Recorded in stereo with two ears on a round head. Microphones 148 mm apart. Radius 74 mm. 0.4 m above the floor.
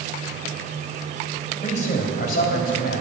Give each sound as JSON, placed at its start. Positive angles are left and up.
{"t": 1.6, "sound": "a man speaking", "side_deg": 45, "distance_m": 2.5}